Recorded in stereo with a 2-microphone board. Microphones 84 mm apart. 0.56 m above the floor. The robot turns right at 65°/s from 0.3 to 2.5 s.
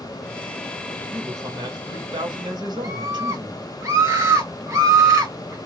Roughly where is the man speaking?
Behind right.